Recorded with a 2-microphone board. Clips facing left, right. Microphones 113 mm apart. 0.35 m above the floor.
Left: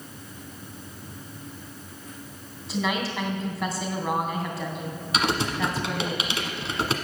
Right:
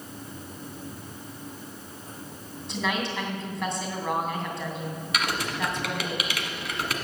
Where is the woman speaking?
5° left (ahead or behind), 2.5 m.